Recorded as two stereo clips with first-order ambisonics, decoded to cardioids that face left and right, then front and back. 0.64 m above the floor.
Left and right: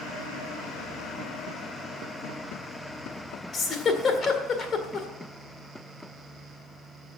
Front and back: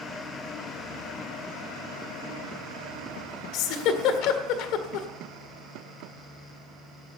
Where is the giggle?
25° left, 1.7 m.